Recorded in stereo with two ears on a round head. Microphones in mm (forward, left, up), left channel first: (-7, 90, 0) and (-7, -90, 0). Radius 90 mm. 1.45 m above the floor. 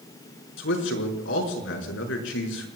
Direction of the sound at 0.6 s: 65° left (ahead or behind).